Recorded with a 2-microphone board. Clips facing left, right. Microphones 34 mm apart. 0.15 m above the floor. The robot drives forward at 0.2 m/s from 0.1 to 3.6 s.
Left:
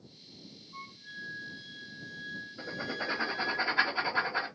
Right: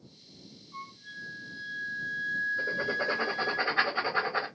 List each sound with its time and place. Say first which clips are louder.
0.7 s a flute: right 2 dB; 40° right (ahead or behind), 3 m; by 3.6 s 35° right (ahead or behind), 3 m
2.6 s writing: right 7 dB; 30° right (ahead or behind), 2.5 m